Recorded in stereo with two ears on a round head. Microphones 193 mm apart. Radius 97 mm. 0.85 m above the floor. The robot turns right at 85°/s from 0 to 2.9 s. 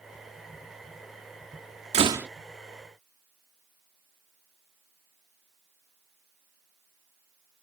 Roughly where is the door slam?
Right.